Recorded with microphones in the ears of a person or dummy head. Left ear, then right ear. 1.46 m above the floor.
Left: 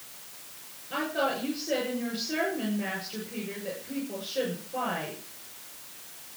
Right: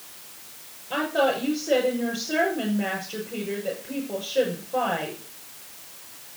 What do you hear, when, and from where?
0.9 s a woman speaking: 40° right (ahead or behind), 6.5 m